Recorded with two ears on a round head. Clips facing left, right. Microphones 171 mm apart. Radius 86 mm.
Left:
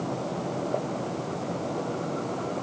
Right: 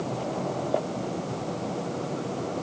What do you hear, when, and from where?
Only background noise.